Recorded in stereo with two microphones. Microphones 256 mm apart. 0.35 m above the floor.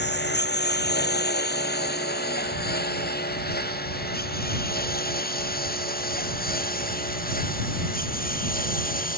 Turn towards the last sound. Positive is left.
turn(degrees=35)  # may be behind; listen again after turning